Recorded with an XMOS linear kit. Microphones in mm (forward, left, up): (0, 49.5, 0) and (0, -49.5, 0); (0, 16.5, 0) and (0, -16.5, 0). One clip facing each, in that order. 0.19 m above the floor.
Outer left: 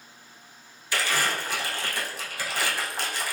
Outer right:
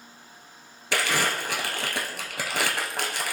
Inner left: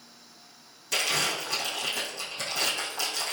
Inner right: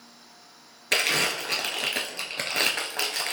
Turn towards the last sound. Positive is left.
turn(degrees=-70)  # may be behind; listen again after turning